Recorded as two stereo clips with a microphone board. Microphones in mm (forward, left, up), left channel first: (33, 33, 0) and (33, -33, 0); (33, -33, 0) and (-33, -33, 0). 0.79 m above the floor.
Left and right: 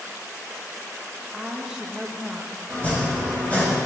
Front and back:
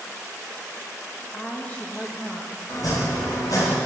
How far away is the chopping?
About 2.5 m.